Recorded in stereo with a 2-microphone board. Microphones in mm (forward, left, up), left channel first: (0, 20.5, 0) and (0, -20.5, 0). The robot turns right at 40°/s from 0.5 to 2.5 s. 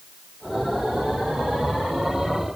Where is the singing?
No singing in this recording.